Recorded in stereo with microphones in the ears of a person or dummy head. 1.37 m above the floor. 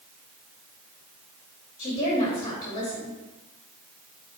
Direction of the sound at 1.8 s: 25° left (ahead or behind).